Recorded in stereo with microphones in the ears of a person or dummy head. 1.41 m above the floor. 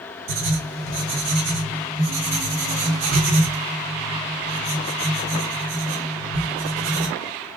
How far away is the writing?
About 2.5 m.